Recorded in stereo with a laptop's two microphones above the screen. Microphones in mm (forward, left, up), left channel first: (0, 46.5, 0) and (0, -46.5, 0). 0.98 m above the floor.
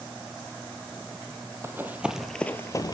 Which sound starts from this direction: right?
Running footsteps, at 1.6 s.